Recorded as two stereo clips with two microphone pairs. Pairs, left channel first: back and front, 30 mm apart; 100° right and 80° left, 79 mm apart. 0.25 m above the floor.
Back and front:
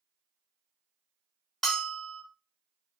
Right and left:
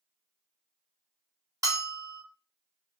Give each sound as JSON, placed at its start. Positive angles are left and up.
{"t": 1.6, "sound": "a bell", "azimuth_deg": 110, "distance_m": 2.0}